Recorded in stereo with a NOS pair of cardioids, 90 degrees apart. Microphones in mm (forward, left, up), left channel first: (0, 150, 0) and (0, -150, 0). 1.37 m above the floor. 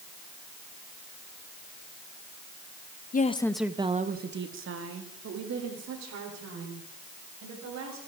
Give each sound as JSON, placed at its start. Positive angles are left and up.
{"t": 3.1, "sound": "a woman speaking", "azimuth_deg": 30, "distance_m": 1.1}